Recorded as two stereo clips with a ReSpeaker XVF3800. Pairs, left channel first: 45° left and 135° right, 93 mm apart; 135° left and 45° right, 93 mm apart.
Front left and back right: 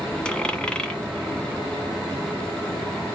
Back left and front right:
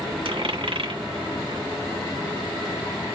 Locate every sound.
0.2 s a dropped coin: 35° right, 1.7 m